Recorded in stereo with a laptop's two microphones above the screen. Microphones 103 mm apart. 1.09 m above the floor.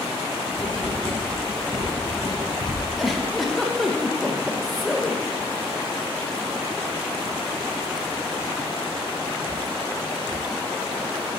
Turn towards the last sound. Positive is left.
turn(degrees=0)  # may be behind; listen again after turning